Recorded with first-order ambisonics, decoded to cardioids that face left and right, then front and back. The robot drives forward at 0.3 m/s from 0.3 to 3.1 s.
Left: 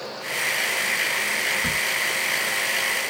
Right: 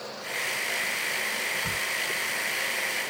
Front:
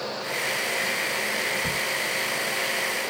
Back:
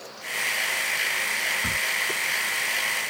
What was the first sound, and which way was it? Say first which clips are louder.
A crack: left 6 dB, back 1 dB; 105° left.